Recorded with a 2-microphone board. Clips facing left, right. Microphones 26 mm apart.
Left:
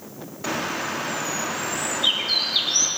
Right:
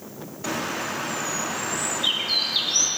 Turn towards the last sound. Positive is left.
turn(degrees=10)  # may be behind; listen again after turning